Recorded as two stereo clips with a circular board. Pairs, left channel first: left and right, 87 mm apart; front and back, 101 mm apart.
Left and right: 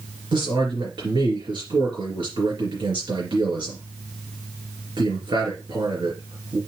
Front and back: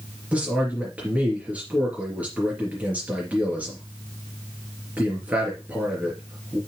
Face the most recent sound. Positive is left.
turn(degrees=-105)